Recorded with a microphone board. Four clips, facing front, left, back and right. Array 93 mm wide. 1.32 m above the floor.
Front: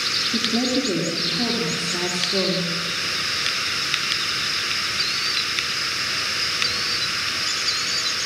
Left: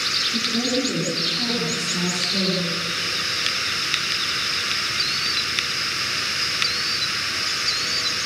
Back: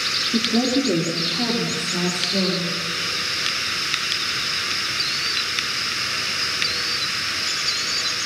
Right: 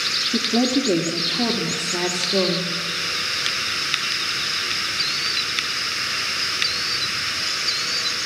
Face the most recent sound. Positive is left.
turn(degrees=-75)